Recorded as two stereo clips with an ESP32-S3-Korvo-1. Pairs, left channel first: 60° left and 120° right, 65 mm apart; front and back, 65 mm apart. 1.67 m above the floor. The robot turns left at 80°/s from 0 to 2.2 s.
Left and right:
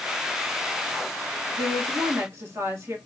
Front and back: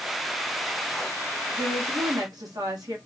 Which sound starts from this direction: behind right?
A woman speaking, at 1.5 s.